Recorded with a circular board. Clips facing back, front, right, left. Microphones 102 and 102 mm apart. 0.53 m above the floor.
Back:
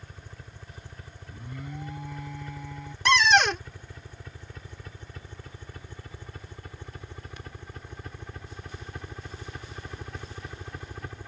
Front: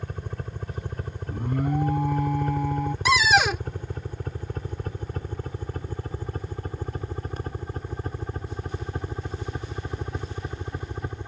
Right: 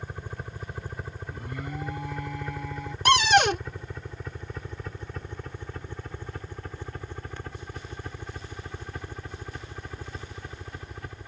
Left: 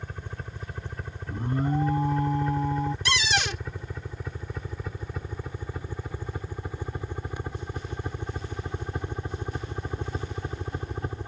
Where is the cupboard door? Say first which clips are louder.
Even, right 8 dB; 80° right.